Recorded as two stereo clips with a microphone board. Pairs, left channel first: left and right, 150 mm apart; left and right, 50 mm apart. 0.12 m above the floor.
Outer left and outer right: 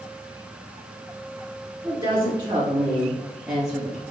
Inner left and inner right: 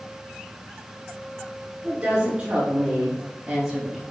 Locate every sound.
1.8 s a woman speaking: 30° right (ahead or behind), 3.5 m; by 4.0 s 10° right (ahead or behind), 2.5 m